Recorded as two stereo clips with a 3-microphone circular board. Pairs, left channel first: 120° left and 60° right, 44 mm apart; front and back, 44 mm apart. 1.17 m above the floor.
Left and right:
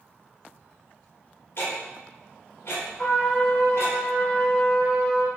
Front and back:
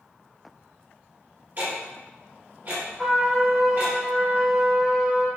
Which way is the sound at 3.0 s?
100° left.